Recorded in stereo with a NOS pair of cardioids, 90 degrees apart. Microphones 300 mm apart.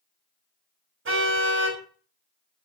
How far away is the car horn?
About 6.5 m.